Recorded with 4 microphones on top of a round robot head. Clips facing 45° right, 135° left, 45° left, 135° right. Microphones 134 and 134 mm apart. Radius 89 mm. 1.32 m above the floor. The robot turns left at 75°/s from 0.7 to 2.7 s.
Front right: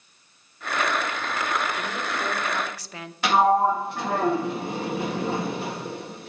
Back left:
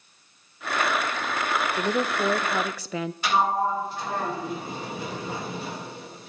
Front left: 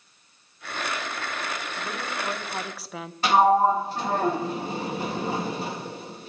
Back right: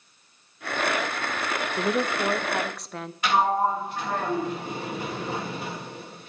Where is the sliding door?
15° right, 1.7 m.